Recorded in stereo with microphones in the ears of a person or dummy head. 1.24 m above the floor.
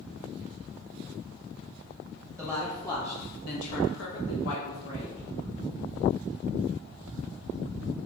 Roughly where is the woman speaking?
Centre.